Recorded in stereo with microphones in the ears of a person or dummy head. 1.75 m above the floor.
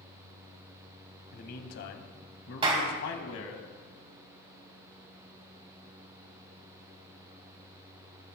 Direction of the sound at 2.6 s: 30° right (ahead or behind).